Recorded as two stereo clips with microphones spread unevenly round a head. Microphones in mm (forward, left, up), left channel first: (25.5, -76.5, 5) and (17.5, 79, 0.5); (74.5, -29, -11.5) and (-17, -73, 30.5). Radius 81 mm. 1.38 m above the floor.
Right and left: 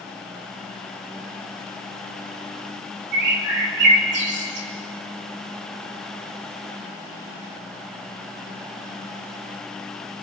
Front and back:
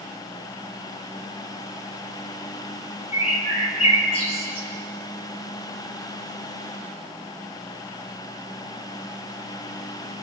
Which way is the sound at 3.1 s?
80° left.